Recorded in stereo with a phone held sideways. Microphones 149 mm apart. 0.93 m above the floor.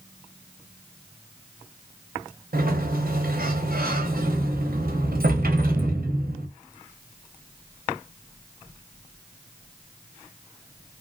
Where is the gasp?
No gasp in this recording.